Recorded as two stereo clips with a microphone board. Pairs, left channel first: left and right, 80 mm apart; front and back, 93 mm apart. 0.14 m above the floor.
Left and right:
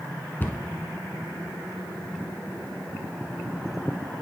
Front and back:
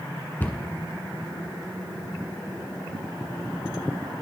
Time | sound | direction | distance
0.4 | a cupboard door | 50° left | 1.0 m